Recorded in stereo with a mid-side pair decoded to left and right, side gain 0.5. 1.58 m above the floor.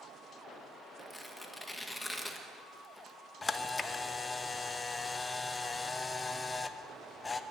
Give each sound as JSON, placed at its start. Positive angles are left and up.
{"t": 1.0, "sound": "tearing paper", "azimuth_deg": 10, "distance_m": 1.6}
{"t": 3.4, "sound": "a camera shutter", "azimuth_deg": 25, "distance_m": 0.8}